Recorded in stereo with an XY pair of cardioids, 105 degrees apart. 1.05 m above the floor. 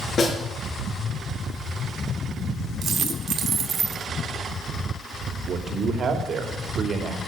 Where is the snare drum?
45° left, 3.5 m.